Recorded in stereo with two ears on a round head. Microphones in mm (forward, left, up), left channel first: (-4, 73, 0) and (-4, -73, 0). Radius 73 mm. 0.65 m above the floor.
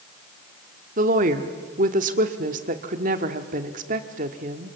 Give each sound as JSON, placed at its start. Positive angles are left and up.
{"t": 1.0, "sound": "a woman speaking", "side_deg": -50, "distance_m": 1.6}